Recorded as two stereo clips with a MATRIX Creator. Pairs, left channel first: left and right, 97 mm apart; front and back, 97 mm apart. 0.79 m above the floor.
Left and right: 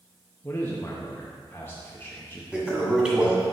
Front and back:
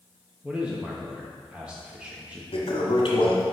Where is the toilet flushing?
10° right, 1.6 m.